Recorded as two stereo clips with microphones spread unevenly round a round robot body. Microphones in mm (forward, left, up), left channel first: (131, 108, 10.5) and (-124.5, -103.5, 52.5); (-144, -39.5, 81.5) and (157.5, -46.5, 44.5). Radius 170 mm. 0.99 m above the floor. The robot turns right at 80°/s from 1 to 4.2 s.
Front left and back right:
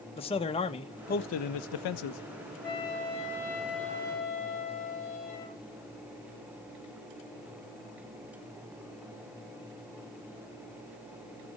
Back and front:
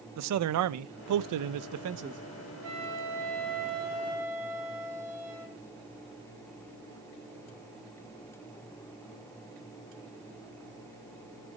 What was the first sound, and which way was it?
A man speaking, 30° right.